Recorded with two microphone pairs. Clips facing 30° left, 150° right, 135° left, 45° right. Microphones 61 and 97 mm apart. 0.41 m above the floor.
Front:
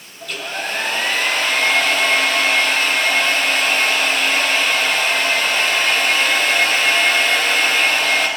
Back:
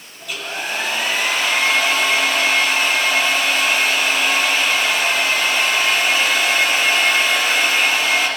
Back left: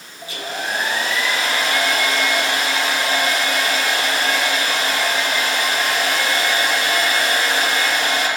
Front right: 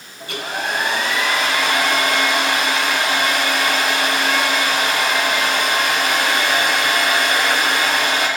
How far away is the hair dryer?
About 4 m.